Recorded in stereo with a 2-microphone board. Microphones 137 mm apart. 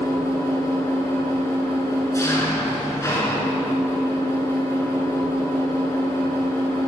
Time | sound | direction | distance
0.0 | an engine running | 25° left (ahead or behind) | 1.4 m